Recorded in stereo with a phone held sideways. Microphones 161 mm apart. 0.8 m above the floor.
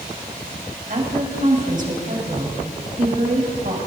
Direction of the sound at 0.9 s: 55° right (ahead or behind).